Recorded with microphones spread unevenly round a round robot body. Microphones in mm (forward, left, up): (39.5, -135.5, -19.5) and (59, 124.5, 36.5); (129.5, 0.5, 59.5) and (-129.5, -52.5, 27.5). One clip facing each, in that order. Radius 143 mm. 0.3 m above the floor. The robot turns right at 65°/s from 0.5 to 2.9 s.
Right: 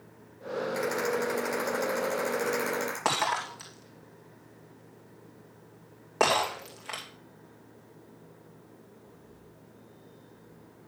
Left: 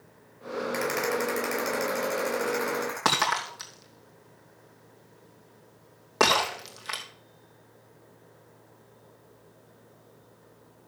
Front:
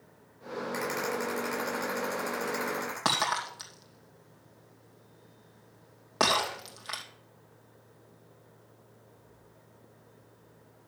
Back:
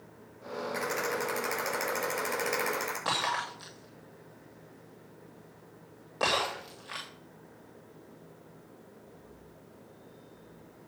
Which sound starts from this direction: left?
A rattle, at 0.7 s.